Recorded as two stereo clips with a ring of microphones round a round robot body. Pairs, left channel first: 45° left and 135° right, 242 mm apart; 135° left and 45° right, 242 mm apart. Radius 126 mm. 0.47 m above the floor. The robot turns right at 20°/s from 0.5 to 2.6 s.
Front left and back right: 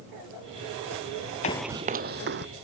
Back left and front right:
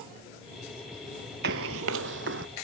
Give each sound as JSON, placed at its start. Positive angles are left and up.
{"t": 1.4, "sound": "running footsteps", "azimuth_deg": -10}